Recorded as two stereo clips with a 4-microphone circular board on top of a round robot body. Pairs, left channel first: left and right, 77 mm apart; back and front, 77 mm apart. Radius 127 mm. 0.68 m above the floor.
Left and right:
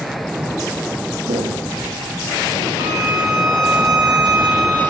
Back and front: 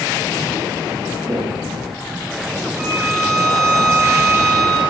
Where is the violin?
50° right, 3 m.